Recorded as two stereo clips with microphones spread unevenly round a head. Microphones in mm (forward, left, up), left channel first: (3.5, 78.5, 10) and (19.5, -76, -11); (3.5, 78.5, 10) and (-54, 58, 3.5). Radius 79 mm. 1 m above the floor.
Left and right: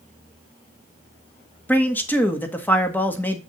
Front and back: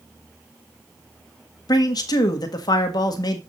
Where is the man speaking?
15° left, 1.6 m.